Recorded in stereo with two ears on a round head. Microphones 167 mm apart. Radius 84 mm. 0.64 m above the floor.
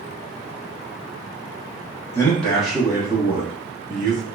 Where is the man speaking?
15° left (ahead or behind), 0.8 m; by 4.2 s 50° right (ahead or behind), 1.1 m.